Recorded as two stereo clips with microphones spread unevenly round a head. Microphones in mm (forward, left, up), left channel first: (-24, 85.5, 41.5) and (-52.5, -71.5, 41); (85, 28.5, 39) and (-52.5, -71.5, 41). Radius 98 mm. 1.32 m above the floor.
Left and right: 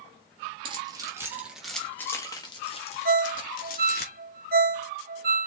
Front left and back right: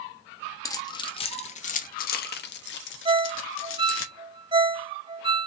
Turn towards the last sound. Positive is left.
turn(degrees=-90)